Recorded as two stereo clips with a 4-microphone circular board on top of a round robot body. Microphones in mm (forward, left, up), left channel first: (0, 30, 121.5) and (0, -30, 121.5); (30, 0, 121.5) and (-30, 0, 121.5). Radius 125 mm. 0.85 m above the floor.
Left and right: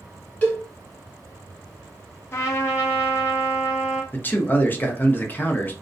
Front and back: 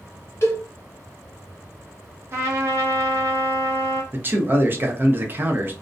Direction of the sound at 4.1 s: 140° left.